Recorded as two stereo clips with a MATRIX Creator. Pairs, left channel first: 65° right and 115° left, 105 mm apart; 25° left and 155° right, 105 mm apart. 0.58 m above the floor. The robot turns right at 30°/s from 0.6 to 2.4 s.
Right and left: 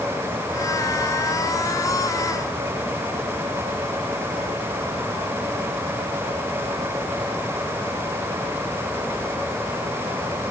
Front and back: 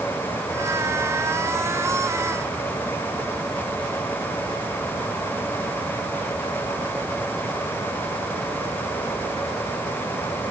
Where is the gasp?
I don't hear a gasp.